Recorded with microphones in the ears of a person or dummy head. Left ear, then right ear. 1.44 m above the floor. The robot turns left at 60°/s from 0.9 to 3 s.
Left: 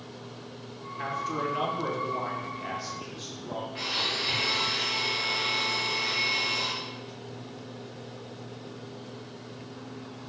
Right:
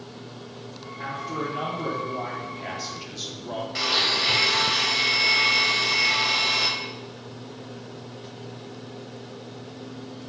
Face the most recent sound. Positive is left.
turn(degrees=-75)  # may be behind; listen again after turning